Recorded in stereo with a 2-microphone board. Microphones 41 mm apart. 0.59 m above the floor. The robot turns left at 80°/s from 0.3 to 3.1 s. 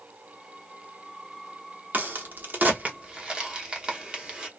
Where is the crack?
45° right (ahead or behind), 0.8 m; by 4.5 s 20° right (ahead or behind), 0.8 m.